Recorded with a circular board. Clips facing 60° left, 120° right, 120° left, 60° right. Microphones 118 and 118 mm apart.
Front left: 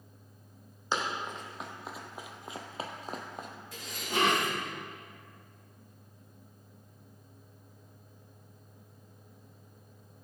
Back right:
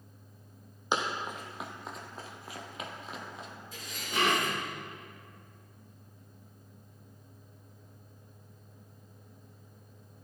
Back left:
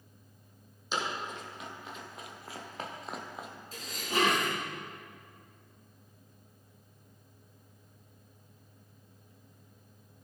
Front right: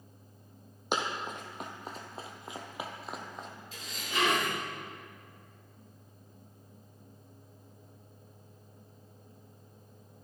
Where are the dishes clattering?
75° left, 4.5 m.